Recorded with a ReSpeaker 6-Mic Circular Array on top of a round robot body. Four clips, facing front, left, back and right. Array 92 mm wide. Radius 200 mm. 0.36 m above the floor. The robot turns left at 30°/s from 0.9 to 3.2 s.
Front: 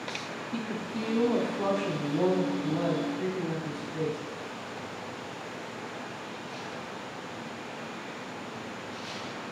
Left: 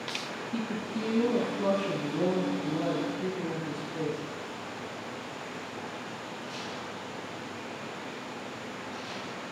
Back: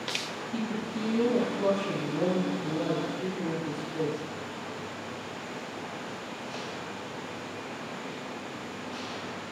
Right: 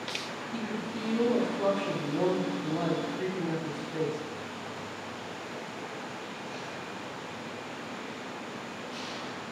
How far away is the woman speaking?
About 2 m.